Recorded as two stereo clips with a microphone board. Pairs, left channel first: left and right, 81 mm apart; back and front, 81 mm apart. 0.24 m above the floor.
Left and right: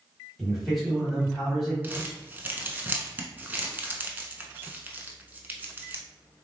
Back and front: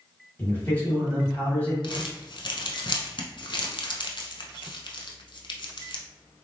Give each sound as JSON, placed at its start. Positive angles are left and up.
{"t": 0.4, "sound": "a man speaking", "azimuth_deg": 175, "distance_m": 1.3}
{"t": 1.8, "sound": "crumpling", "azimuth_deg": -160, "distance_m": 0.5}